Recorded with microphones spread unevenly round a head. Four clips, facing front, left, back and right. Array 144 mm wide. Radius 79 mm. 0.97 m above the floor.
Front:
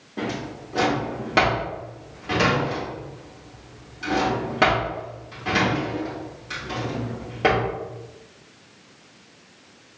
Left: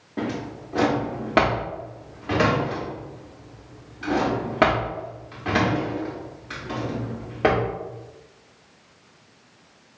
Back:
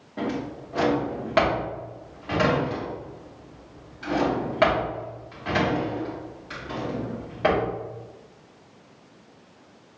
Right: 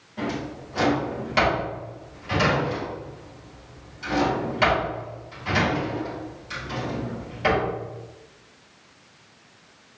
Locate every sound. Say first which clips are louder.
0.2 s a drawer: left 1 dB, even; 75° left, 1.1 m